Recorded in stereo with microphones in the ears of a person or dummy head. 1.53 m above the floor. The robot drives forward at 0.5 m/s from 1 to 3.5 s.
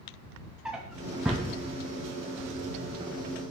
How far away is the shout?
I don't hear a shout.